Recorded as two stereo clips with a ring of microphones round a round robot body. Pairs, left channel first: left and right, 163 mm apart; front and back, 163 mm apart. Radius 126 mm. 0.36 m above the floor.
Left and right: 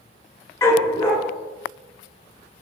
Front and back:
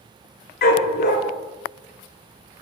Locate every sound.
0.6 s a dog barking: 15° left, 1.5 m